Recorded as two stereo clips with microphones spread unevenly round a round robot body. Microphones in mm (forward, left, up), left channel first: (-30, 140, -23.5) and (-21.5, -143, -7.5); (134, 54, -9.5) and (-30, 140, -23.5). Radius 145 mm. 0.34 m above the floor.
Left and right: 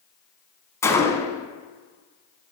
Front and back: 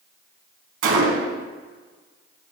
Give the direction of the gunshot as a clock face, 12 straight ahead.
6 o'clock.